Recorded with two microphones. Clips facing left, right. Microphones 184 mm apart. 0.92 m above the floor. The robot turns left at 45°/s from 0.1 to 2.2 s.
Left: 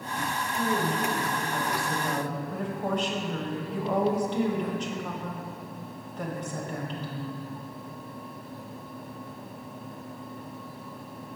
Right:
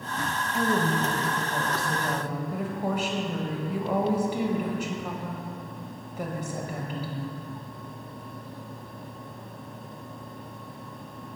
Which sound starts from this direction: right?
A woman speaking, at 0.5 s.